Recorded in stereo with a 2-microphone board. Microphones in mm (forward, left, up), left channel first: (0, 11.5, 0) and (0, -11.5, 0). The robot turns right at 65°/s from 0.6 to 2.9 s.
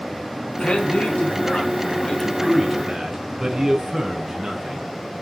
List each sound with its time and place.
0.6 s a man speaking: 60° left, 3.5 m; by 4.9 s 150° right, 3.5 m